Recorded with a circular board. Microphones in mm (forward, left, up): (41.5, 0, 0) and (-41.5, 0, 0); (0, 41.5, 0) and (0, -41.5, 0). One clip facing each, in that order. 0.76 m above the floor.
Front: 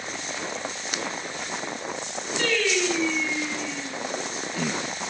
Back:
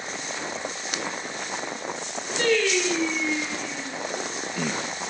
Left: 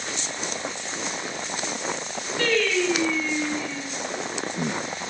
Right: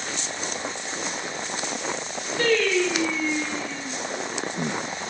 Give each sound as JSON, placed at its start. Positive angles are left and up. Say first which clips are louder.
{"t": 2.4, "sound": "singing", "louder": "back 3 dB, right 2 dB", "azimuth_deg": -120, "distance_m": 1.3}